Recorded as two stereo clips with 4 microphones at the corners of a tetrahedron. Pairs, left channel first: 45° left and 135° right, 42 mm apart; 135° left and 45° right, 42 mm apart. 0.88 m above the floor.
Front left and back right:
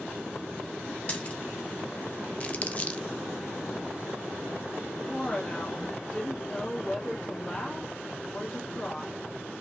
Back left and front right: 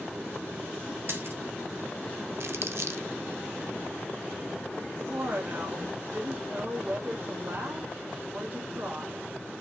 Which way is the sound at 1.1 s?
20° right.